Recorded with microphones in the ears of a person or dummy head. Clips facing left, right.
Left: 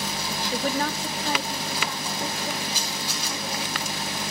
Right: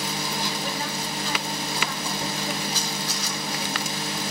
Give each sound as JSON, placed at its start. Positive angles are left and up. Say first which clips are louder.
{"t": 0.5, "sound": "a woman speaking", "louder": "left 4 dB", "side_deg": 40, "distance_m": 0.8}
{"t": 2.7, "sound": "a camera shutter", "louder": "right 2 dB", "side_deg": 10, "distance_m": 4.5}